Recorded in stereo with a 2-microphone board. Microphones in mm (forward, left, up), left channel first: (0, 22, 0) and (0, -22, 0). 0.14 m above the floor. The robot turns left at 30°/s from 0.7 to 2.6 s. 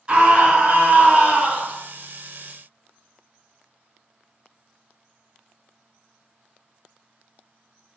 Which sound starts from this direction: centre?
A scream, at 0.1 s.